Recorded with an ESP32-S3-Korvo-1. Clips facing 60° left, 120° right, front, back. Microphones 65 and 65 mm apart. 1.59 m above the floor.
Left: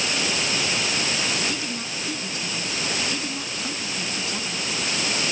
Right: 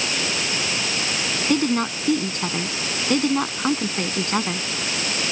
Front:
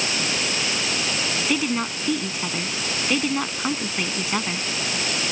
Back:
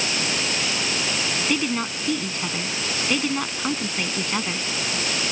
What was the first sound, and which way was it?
A woman speaking, 85° right.